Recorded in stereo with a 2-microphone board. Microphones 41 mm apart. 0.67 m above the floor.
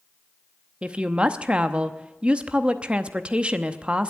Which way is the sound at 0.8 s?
25° right (ahead or behind).